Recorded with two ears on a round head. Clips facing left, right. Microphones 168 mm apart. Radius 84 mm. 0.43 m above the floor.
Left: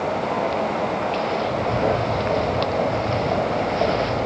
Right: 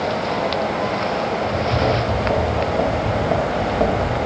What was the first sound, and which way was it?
Footsteps, 70° right (ahead or behind).